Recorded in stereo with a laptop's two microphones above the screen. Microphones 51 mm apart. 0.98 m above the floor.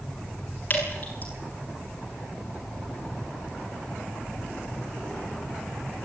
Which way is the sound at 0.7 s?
35° left (ahead or behind).